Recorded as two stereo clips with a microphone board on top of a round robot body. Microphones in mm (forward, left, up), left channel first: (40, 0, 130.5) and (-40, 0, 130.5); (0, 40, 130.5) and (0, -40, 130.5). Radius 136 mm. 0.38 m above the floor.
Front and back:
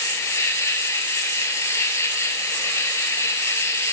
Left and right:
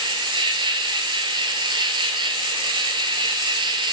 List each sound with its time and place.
0.0 s an insect: 60° right, 0.9 m